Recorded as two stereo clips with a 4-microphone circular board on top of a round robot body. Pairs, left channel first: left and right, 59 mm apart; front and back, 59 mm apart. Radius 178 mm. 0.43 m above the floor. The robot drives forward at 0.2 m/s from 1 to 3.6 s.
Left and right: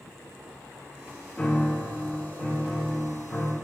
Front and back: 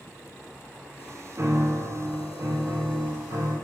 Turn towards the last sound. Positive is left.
turn(degrees=170)